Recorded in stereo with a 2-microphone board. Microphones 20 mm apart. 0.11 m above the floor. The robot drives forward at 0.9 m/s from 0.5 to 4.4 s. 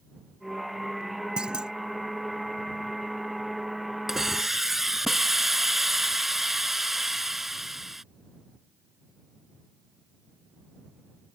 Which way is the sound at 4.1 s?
20° right (ahead or behind).